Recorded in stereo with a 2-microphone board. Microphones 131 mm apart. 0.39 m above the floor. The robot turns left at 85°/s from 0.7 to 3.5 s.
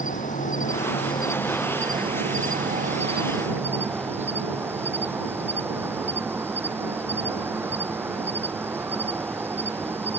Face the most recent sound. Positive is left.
turn(degrees=-165)